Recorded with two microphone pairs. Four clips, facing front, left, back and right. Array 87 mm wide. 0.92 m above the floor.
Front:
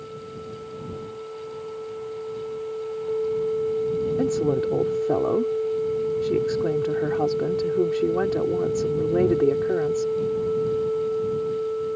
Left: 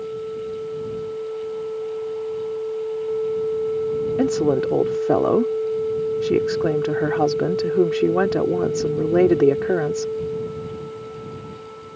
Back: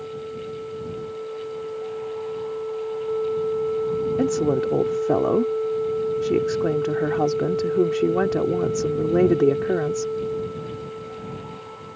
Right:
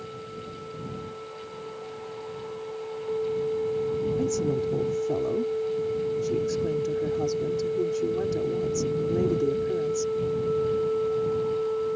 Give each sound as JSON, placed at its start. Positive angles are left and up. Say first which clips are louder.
{"t": 4.2, "sound": "a woman speaking", "louder": "left 7 dB, back 2 dB", "azimuth_deg": 95}